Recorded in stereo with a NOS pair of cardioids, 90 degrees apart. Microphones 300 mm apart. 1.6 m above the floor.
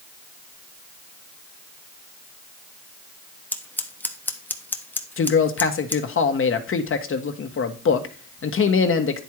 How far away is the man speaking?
About 1.4 m.